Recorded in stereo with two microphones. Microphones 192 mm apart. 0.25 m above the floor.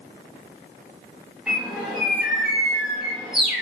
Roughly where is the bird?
Centre.